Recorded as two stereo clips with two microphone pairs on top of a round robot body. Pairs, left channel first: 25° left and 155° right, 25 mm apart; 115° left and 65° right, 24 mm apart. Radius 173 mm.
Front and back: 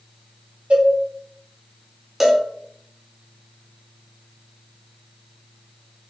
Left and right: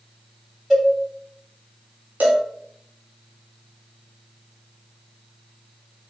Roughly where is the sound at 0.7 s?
Behind right.